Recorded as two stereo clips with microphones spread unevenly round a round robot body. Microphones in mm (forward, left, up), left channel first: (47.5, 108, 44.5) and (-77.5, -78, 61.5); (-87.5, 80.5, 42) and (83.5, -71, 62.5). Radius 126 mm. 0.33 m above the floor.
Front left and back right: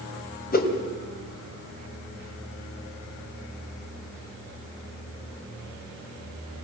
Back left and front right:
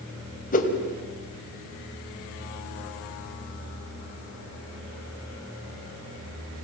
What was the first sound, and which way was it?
A whoosh, 95° left.